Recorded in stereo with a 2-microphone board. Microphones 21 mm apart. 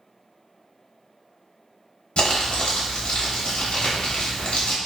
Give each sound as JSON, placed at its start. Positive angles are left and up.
{"t": 2.2, "sound": "crumpling", "side_deg": 65, "distance_m": 0.8}